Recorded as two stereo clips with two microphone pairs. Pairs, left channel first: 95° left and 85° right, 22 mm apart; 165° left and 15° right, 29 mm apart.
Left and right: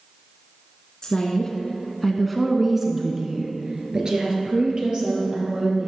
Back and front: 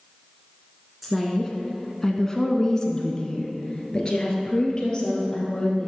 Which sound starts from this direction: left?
A woman speaking, at 1.0 s.